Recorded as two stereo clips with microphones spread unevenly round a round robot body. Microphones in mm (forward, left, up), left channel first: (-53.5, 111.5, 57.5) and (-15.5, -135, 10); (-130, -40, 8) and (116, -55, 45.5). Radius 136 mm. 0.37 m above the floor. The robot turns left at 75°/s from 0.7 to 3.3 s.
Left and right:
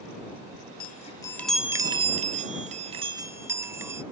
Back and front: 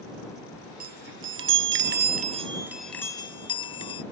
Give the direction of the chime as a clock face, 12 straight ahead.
10 o'clock.